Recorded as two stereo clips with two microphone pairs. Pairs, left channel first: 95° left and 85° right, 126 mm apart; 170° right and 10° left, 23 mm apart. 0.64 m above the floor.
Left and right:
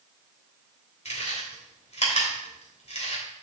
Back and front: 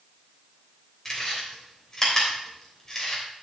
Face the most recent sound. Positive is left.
turn(degrees=125)